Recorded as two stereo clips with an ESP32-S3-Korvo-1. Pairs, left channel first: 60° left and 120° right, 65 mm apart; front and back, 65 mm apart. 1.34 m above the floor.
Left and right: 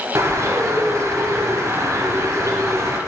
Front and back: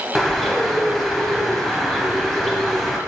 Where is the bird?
90° right, 0.9 m.